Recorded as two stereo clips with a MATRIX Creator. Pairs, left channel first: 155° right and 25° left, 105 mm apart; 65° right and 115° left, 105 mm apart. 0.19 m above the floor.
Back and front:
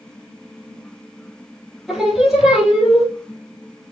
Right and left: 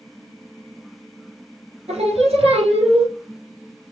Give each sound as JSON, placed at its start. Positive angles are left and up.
{"t": 1.9, "sound": "singing", "azimuth_deg": 110, "distance_m": 3.5}